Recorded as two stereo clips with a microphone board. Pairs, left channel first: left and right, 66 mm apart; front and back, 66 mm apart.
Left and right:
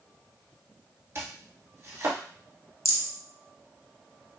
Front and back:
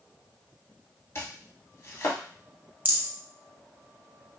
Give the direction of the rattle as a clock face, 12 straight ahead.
8 o'clock.